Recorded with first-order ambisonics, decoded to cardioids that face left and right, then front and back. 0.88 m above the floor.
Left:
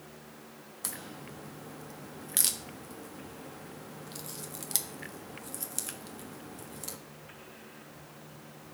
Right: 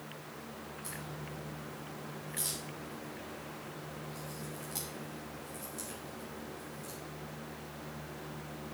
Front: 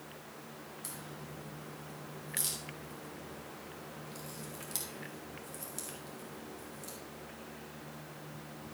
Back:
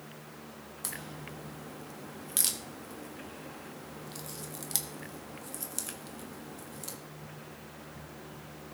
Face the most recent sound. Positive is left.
turn(degrees=120)